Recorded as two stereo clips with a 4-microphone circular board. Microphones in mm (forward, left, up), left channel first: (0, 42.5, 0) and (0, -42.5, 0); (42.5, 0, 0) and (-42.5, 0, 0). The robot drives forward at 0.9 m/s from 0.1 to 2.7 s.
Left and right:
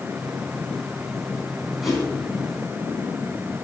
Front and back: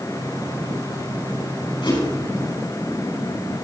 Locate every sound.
1.8 s a whoosh: straight ahead, 9 m